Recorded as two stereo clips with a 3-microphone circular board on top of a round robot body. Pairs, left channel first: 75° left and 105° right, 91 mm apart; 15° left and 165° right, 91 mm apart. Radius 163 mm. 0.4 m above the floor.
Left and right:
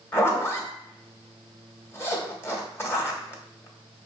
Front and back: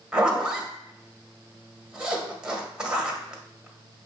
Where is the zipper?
120° left, 1.6 m.